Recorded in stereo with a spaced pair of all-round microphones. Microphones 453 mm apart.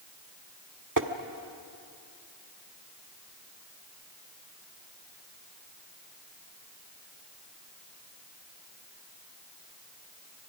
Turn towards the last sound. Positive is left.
turn(degrees=-40)  # may be behind; listen again after turning